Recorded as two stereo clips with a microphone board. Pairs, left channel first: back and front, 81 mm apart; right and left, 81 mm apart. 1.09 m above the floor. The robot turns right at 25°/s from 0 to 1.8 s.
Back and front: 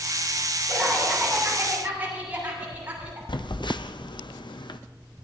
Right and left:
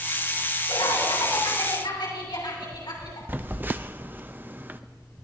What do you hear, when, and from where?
0.7 s laughter: 100° right, 8 m; by 3.2 s 70° right, 8 m
3.3 s a phone buzzing: 155° left, 0.5 m